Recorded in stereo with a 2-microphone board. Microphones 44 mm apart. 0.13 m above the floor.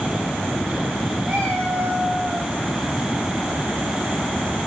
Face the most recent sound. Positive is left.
turn(degrees=-30)  # may be behind; listen again after turning